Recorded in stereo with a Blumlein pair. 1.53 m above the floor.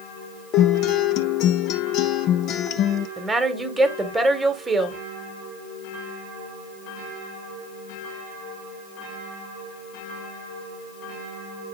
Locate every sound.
0.5 s a guitar: 35° left, 0.8 m
3.2 s a woman speaking: 10° right, 1.5 m